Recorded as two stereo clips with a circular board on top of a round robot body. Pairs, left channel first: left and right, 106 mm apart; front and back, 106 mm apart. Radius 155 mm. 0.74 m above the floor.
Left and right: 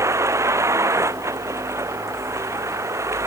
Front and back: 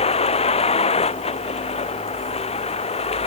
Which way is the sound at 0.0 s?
25° right.